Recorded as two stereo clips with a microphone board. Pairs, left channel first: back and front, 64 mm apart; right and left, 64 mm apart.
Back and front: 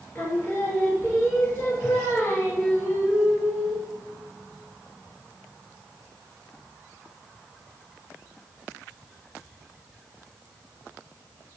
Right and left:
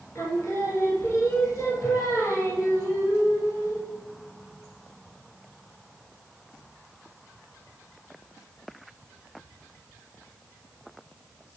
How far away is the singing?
About 1.4 m.